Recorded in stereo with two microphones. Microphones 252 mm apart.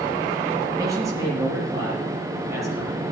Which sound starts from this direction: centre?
A man speaking, at 0.8 s.